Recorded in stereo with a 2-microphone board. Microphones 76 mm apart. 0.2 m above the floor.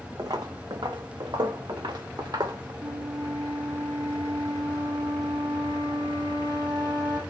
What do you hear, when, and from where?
0.2 s footsteps: 60° right (ahead or behind), 1.0 m; by 2.7 s 65° right (ahead or behind), 1.9 m
2.8 s a flute: 80° right, 2.5 m